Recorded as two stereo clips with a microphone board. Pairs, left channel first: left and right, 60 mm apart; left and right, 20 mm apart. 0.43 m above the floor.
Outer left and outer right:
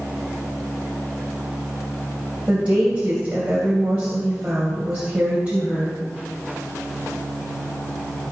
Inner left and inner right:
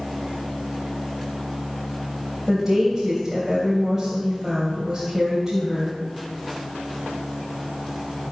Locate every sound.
2.5 s a woman speaking: 25° right (ahead or behind), 2.5 m